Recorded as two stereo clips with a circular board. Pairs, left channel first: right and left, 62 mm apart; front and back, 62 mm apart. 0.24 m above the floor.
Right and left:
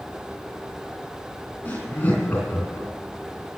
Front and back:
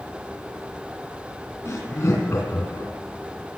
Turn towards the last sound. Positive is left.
turn(degrees=-30)